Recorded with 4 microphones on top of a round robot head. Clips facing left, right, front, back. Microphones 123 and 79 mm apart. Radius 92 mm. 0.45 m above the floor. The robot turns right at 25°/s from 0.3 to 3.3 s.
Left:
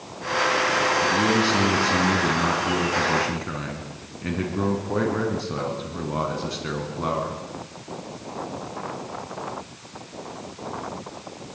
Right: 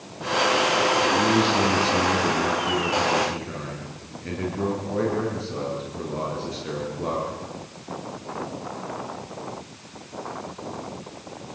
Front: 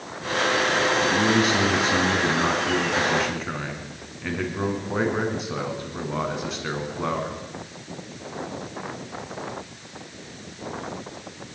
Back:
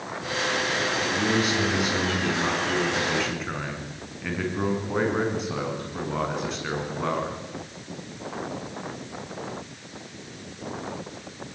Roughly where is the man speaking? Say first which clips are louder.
Right 1 dB, front 4 dB; ahead left.